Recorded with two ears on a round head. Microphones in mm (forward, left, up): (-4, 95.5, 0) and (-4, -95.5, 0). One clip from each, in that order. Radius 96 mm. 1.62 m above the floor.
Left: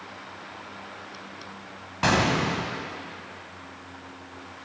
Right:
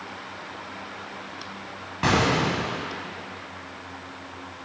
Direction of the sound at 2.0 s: 25° left (ahead or behind).